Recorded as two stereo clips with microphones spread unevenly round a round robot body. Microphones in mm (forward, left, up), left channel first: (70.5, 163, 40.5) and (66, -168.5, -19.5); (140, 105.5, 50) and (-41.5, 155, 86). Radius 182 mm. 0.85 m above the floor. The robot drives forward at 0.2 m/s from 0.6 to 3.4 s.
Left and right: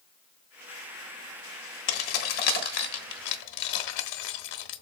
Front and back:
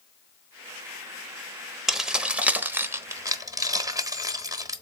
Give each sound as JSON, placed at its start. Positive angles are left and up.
{"t": 1.9, "sound": "keys jangling", "azimuth_deg": 75, "distance_m": 1.1}